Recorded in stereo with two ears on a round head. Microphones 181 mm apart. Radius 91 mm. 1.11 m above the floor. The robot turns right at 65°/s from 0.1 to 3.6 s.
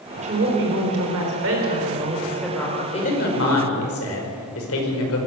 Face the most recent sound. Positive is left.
turn(degrees=70)